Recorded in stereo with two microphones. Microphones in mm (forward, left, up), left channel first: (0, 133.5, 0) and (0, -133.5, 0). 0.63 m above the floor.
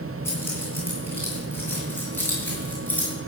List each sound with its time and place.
0.2 s keys jangling: 10° left (ahead or behind), 8 m; by 3.1 s 5° left (ahead or behind), 6 m